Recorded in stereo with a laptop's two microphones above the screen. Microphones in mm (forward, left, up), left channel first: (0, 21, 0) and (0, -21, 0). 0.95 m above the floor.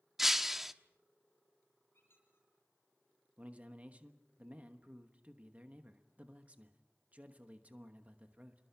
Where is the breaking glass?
10° right (ahead or behind), 1.0 m.